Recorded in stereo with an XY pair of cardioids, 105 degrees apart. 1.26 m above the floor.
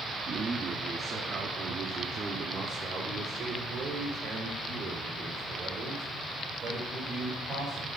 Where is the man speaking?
50° right, 1.8 m; by 7.9 s 60° right, 6 m.